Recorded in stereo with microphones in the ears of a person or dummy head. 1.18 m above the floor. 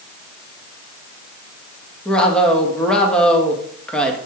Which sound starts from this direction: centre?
A woman speaking, at 2.0 s.